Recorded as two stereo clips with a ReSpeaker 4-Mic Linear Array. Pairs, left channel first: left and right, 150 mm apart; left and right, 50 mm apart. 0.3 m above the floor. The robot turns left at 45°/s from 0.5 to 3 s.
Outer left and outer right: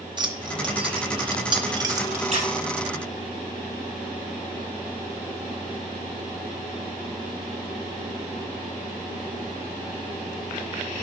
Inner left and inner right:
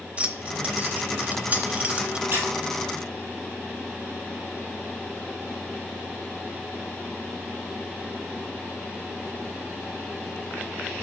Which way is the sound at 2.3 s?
45° right (ahead or behind).